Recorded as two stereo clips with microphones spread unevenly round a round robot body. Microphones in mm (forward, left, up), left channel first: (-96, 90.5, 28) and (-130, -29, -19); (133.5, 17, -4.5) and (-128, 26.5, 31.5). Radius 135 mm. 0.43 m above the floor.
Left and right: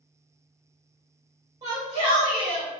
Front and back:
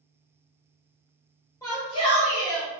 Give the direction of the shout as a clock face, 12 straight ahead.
2 o'clock.